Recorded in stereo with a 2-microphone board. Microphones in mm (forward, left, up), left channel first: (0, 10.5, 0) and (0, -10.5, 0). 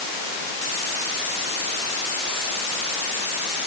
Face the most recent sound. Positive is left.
No sound to turn to.